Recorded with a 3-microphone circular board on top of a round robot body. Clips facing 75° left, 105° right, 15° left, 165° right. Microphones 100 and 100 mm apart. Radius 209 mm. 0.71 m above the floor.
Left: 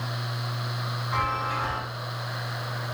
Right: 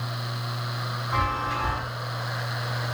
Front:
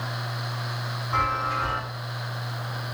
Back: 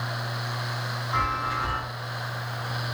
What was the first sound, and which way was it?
A chime, 40° right.